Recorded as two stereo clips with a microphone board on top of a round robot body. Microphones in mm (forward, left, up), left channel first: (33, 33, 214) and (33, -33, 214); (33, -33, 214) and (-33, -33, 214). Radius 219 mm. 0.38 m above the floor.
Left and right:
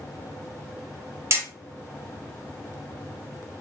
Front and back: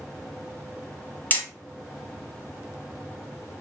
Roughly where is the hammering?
Ahead right.